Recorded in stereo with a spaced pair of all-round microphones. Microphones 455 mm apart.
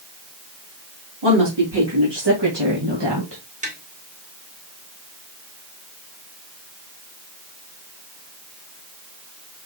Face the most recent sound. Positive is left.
turn(degrees=-15)  # may be behind; listen again after turning